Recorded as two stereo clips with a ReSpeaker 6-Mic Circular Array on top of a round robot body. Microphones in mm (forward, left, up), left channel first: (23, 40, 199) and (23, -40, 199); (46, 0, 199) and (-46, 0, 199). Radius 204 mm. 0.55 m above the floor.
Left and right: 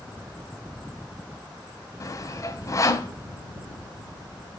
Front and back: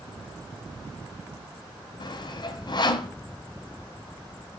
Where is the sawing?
40° left, 2 m.